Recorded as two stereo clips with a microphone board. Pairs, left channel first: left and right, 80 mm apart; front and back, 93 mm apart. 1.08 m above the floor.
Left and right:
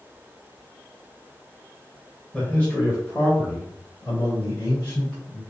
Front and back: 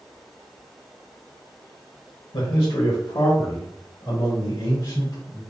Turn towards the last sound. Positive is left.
turn(degrees=40)